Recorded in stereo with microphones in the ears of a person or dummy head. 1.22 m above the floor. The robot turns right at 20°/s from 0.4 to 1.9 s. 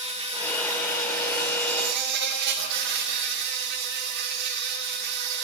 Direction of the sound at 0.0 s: 160° right.